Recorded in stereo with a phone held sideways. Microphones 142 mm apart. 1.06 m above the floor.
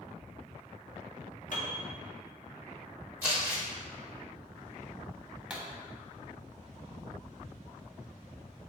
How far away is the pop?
About 0.8 m.